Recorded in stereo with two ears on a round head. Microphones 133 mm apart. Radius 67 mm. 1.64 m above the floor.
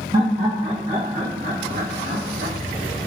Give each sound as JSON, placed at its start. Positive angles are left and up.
{"t": 0.1, "sound": "laughter", "side_deg": -25, "distance_m": 1.5}